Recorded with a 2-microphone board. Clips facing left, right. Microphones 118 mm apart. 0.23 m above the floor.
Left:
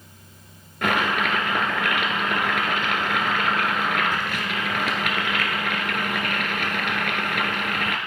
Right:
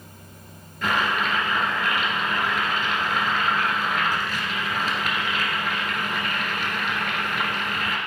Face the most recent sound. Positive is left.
turn(degrees=70)  # may be behind; listen again after turning